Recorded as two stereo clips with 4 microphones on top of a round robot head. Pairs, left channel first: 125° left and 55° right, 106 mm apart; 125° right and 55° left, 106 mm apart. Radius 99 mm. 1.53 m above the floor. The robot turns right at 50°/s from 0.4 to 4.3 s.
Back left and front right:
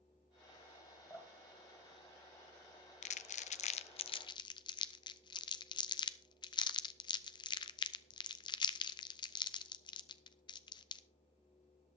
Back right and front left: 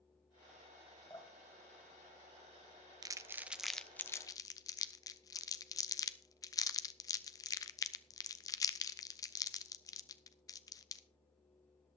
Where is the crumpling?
110° left, 0.6 m; by 11.0 s 175° left, 0.6 m.